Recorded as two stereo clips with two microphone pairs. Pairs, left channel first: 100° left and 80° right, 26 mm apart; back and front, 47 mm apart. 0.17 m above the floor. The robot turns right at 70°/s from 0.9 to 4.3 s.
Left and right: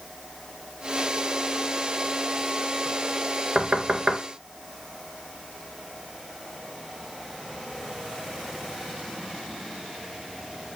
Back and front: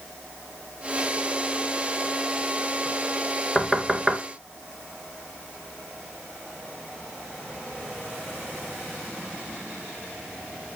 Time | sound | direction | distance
3.5 | knocking | 105° right | 1.9 m